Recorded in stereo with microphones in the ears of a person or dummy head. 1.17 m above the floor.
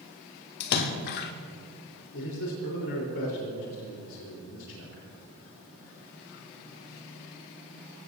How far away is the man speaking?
About 4 m.